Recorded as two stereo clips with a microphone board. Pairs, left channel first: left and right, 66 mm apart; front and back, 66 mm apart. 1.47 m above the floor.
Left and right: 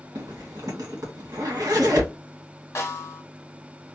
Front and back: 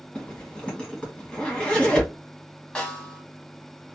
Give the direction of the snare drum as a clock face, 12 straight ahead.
10 o'clock.